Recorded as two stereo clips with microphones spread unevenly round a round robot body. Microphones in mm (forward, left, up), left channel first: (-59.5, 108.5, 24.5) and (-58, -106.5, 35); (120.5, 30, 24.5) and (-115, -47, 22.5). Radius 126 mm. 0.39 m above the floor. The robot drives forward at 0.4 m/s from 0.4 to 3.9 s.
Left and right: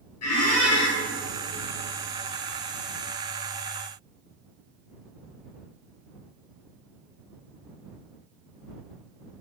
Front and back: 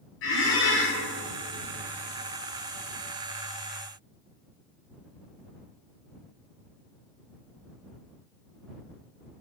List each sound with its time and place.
0.2 s a squeak: 60° left, 1.5 m; by 1.0 s 65° left, 1.4 m